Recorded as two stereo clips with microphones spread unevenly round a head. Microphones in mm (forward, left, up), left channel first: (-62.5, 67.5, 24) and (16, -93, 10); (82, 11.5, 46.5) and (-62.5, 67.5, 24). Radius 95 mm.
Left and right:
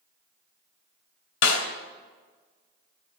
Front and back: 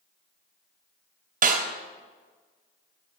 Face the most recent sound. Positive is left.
turn(degrees=125)